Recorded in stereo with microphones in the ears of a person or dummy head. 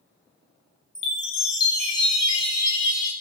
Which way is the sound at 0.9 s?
30° left (ahead or behind).